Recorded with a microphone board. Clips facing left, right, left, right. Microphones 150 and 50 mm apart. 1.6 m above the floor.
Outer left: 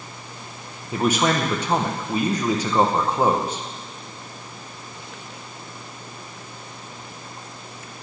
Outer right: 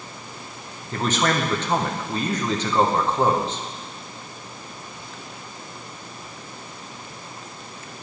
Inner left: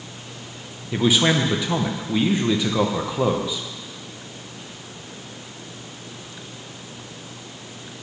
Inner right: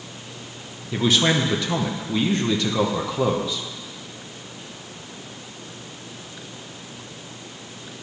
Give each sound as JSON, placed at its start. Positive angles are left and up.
{"t": 0.9, "sound": "a man speaking", "side_deg": 10, "distance_m": 0.9}